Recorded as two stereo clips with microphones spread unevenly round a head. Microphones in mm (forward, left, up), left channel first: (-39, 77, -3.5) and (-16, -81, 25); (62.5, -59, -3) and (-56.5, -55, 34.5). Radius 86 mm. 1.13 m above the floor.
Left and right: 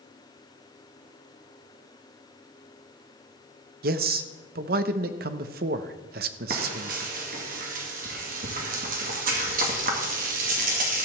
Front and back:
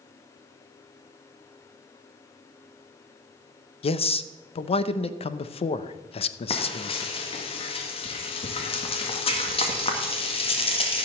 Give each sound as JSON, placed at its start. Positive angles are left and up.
{"t": 3.8, "sound": "a man speaking", "azimuth_deg": -40, "distance_m": 0.8}
{"t": 6.5, "sound": "frying", "azimuth_deg": -35, "distance_m": 1.9}